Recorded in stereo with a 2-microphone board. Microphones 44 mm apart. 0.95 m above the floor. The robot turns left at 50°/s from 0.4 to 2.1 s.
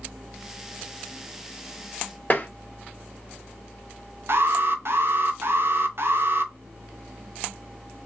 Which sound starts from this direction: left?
Tapping, at 2.3 s.